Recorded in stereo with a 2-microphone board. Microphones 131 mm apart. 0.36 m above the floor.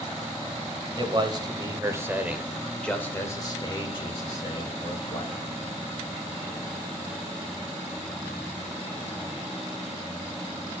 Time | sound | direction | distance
1.0 | a man speaking | 40° right (ahead or behind) | 1.3 m